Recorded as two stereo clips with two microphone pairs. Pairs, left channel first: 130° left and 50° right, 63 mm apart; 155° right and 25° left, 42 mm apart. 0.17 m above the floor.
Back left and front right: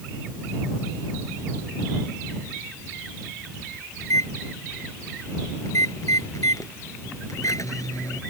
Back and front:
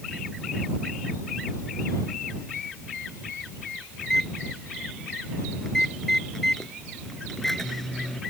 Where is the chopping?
I don't hear chopping.